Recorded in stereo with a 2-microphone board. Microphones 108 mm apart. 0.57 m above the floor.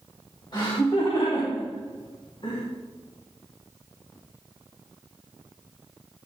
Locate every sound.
0.5 s laughter: 45° left (ahead or behind), 2.5 m; by 2.6 s 50° left (ahead or behind), 4.5 m